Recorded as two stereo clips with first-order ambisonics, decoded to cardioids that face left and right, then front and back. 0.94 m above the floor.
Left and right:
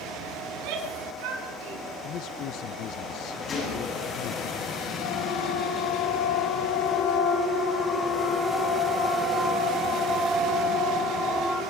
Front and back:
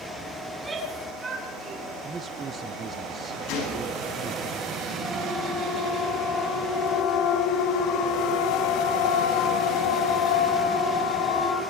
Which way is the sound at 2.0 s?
115° left.